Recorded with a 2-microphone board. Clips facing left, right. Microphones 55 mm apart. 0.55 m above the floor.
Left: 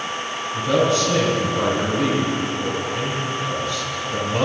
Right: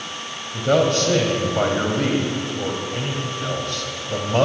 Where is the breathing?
I don't hear breathing.